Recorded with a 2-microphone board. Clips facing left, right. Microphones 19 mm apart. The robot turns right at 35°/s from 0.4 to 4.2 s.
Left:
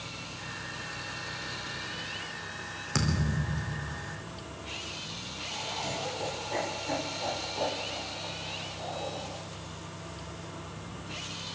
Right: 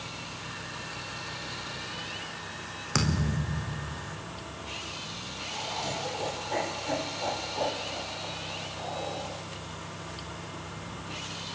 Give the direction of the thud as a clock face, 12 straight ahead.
1 o'clock.